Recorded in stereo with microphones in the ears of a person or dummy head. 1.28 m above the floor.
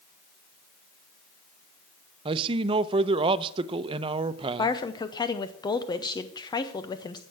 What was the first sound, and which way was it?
A man speaking, 30° right (ahead or behind).